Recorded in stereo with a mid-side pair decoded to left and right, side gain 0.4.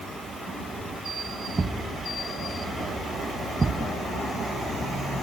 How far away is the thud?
About 3 m.